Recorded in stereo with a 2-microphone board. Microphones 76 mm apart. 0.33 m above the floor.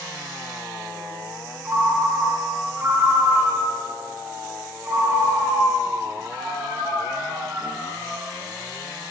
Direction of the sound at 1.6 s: 30° right (ahead or behind).